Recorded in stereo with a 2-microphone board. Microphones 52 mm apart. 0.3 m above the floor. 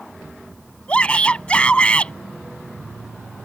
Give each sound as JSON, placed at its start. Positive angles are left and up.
{"t": 0.9, "sound": "a shout", "side_deg": 25}